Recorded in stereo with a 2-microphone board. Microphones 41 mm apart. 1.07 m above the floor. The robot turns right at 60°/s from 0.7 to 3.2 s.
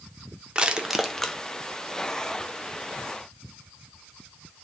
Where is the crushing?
20° right (ahead or behind), 0.6 m; by 1.4 s 20° left (ahead or behind), 0.6 m.